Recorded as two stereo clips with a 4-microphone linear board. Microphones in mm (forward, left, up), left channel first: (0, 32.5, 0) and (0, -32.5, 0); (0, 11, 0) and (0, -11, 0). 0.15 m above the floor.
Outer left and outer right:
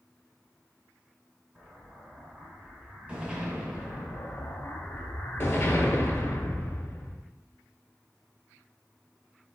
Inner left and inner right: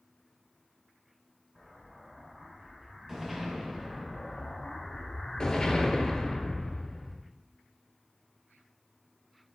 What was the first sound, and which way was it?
An explosion, 20° right (ahead or behind).